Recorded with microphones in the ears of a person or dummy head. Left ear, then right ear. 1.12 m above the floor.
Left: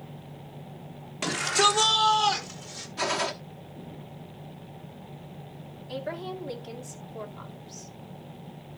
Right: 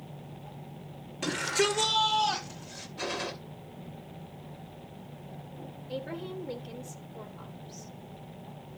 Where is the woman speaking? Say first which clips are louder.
Left 3 dB; 40° left (ahead or behind), 2.5 m.